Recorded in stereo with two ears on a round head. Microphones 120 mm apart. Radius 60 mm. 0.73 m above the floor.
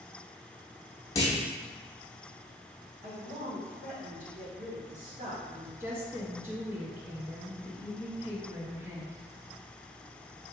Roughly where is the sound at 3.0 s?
Right.